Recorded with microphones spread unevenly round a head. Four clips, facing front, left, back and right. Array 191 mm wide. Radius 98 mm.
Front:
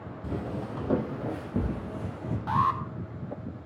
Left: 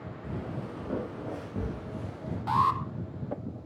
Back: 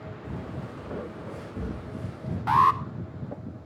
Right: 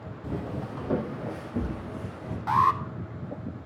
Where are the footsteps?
30° right, 3.5 m; by 2.4 s straight ahead, 5 m.